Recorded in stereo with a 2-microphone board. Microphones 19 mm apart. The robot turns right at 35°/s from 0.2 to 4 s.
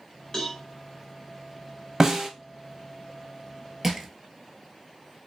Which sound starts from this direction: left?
A cowbell, at 0.3 s.